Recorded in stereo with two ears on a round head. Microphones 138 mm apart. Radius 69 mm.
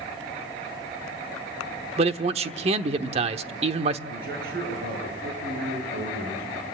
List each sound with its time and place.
2.0 s a man speaking: 40° right (ahead or behind), 1.0 m
4.1 s a man speaking: 65° right (ahead or behind), 8.5 m